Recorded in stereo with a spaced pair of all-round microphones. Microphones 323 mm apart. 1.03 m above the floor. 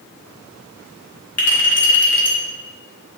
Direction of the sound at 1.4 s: 50° left (ahead or behind).